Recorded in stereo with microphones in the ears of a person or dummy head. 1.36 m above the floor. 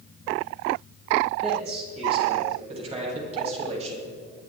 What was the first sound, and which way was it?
A man speaking, 40° right (ahead or behind).